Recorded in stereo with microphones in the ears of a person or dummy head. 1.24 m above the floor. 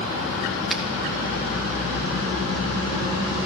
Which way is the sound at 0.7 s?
Centre (ahead or behind).